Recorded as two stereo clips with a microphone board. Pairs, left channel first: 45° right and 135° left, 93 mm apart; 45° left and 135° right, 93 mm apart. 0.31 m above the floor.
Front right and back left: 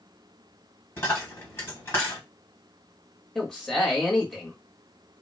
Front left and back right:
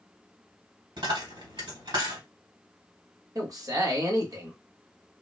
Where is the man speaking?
125° right, 1.2 m.